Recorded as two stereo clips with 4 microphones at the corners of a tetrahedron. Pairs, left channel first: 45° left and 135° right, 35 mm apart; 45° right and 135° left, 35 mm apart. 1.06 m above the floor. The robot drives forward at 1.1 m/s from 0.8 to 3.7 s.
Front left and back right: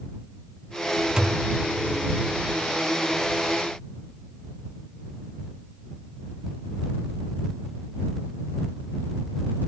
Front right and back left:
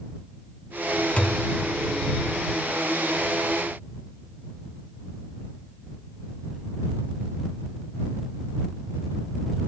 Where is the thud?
75° right, 0.5 m; by 1.5 s 130° right, 0.6 m.